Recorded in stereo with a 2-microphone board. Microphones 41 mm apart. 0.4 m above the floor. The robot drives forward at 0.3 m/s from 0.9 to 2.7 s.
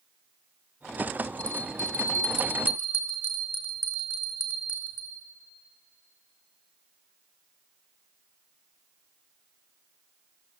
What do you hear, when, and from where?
1.4 s a bell: 55° left (ahead or behind), 1.3 m